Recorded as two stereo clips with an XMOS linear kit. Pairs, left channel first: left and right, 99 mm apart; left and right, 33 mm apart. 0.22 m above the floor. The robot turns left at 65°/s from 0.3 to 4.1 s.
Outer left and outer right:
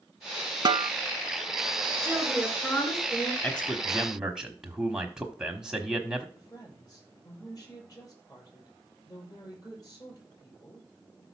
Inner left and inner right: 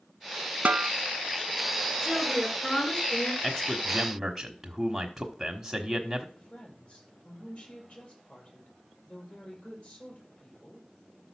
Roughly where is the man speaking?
Centre.